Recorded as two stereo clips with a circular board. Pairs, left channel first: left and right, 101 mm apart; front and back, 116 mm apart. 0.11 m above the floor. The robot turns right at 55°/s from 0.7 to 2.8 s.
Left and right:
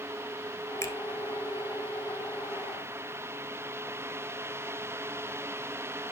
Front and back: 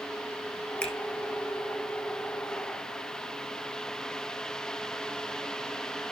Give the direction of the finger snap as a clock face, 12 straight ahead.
10 o'clock.